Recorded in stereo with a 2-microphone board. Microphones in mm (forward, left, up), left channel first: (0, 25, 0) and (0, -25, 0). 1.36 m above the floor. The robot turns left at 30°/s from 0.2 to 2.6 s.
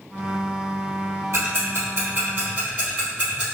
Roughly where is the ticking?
Right.